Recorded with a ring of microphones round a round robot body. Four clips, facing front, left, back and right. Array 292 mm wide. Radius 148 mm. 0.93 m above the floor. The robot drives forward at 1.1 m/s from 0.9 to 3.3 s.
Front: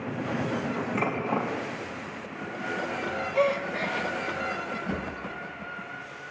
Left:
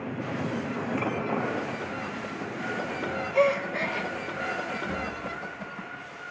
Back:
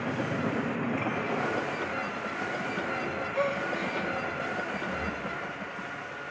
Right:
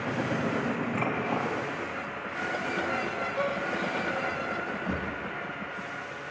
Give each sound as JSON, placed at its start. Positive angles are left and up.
{"t": 0.9, "sound": "dishes clattering", "azimuth_deg": -25, "distance_m": 5.0}
{"t": 3.3, "sound": "a gasp", "azimuth_deg": 65, "distance_m": 0.6}
{"t": 4.9, "sound": "a drawer", "azimuth_deg": -60, "distance_m": 7.5}